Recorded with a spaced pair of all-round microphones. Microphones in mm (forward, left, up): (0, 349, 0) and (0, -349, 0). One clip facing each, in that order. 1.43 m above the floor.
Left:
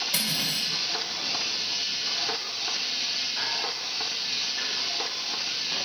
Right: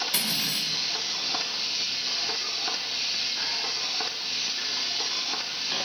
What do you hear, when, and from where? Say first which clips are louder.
0.1 s cutlery clinking: left 4 dB; 15° left (ahead or behind), 3.5 m